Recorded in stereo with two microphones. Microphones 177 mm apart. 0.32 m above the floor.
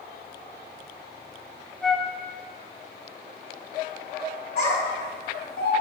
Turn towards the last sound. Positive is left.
turn(degrees=70)  # may be behind; listen again after turning